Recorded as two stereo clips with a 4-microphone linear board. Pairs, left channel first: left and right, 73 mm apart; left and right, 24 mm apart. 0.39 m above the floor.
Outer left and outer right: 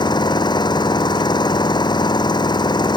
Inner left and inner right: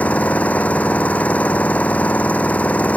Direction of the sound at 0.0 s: 80° left.